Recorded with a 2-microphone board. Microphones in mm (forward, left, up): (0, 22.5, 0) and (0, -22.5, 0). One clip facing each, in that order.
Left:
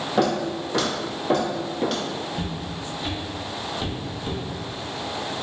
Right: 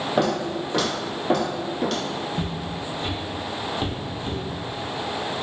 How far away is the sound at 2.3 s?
About 1.9 m.